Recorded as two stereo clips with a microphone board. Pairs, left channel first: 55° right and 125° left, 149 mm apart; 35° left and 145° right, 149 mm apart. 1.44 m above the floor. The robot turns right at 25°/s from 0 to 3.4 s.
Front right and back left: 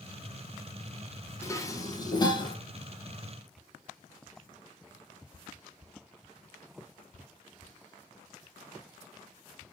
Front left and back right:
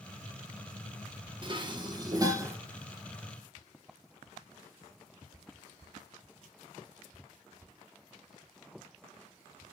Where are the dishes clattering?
115° right, 0.5 m; by 2.5 s 90° right, 0.5 m.